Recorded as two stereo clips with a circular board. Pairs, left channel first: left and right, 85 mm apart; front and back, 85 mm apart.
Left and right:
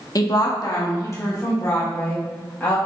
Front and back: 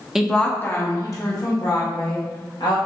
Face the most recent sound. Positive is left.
turn(degrees=25)